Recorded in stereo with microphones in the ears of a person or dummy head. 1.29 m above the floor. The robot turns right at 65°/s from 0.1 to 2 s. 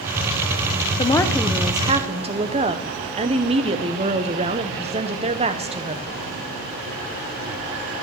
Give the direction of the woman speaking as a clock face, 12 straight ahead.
7 o'clock.